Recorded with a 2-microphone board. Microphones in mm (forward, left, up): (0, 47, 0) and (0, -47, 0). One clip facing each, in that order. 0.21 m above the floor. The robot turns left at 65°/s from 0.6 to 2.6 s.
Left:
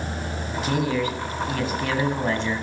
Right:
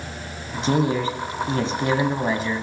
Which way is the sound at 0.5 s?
55° right.